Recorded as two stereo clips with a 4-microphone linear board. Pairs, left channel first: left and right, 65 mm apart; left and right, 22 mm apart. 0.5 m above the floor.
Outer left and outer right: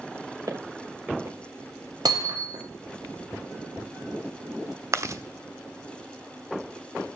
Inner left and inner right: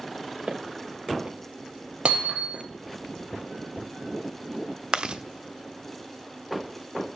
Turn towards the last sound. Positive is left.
turn(degrees=-45)  # may be behind; listen again after turning